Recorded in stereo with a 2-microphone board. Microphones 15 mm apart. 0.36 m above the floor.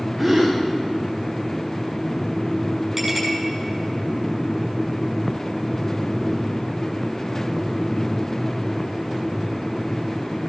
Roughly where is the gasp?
Centre.